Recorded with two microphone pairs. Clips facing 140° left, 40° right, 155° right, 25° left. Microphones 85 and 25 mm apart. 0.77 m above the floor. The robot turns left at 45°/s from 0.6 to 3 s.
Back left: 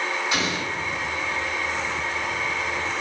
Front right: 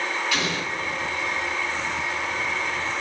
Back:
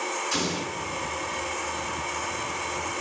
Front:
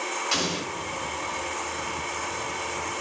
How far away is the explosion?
About 1.2 m.